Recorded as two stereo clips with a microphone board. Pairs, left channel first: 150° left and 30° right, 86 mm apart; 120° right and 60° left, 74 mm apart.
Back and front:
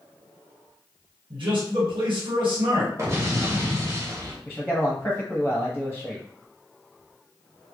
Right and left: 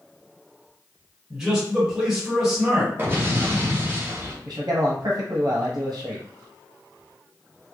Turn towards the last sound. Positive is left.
turn(degrees=75)